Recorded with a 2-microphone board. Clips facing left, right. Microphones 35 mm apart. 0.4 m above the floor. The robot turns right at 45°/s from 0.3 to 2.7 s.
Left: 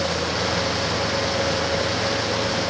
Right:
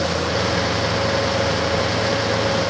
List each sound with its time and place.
Only background noise.